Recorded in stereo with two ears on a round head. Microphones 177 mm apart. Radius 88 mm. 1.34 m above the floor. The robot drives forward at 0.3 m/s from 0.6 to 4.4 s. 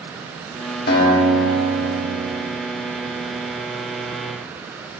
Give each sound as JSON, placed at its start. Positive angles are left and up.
{"t": 0.9, "sound": "a guitar", "side_deg": 55, "distance_m": 1.6}